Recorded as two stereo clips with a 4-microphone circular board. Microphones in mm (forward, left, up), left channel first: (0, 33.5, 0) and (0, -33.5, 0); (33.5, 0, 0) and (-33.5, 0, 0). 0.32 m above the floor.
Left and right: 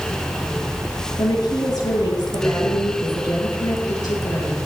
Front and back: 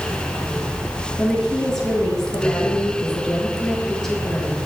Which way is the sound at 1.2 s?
85° left.